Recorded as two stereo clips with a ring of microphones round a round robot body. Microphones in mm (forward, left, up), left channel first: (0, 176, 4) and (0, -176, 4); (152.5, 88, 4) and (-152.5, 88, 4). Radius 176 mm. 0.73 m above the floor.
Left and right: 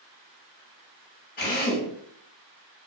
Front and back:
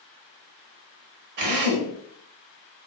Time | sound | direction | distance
1.4 | a drill | 155° left | 0.8 m